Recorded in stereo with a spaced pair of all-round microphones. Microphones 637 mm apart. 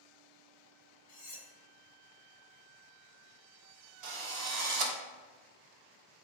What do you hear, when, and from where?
1.1 s cutlery clinking: 30° left (ahead or behind), 0.8 m
4.0 s a drill: 75° right (ahead or behind), 0.8 m